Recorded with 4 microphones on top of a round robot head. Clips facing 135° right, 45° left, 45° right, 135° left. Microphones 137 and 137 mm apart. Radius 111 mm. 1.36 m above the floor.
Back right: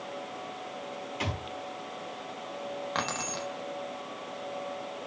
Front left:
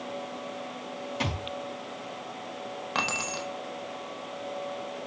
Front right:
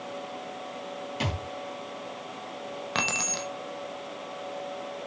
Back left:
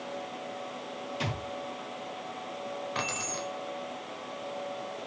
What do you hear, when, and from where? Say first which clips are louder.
1.2 s a thud: front left 2 dB, front right 3 dB; 15° right, 4.5 m
3.0 s keys jangling: front left 1 dB, front right 2 dB; 35° right, 0.9 m